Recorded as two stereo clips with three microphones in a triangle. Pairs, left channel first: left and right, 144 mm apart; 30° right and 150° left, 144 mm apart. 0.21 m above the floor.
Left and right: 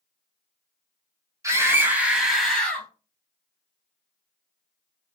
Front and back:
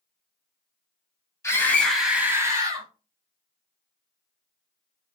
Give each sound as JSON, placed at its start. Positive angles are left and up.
{"t": 1.4, "sound": "a scream", "azimuth_deg": -60, "distance_m": 1.0}